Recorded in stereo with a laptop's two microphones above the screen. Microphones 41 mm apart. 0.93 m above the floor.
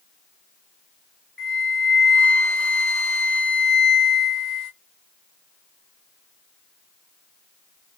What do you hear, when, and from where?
1.4 s a flute: 5° left (ahead or behind), 1.3 m